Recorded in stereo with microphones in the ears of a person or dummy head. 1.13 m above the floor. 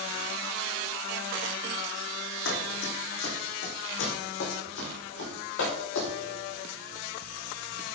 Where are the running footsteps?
75° left (ahead or behind), 4.5 m; by 6.0 s 70° left (ahead or behind), 7 m.